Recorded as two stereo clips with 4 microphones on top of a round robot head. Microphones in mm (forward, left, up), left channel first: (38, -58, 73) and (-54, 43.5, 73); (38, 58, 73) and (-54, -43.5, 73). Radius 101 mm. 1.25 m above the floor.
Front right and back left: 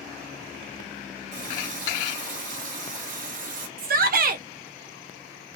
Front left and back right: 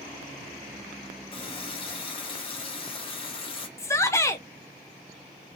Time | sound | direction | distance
1.3 | a running tap | 100° left | 1.1 m
3.8 | a shout | 120° left | 0.5 m